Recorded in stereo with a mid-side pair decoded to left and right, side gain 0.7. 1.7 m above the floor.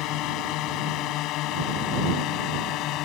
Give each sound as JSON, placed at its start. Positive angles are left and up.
{"t": 0.0, "sound": "a drone", "azimuth_deg": 60}